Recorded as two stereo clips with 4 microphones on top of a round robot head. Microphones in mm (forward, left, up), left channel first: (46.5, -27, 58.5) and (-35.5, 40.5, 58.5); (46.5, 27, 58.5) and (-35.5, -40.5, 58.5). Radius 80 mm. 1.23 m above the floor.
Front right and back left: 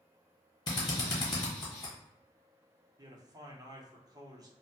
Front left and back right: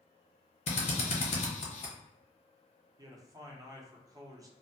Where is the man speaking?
Straight behind, 0.8 m.